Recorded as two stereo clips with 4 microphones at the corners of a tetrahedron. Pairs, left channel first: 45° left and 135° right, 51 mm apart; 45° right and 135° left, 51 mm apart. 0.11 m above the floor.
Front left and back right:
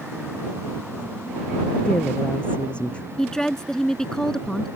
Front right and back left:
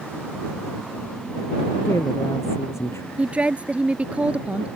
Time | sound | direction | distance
1.9 | a woman speaking | 25° right | ?
3.2 | a woman speaking | 110° left | ?